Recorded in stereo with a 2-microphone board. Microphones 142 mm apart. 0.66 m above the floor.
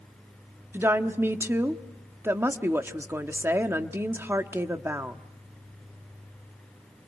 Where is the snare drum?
No snare drum in this recording.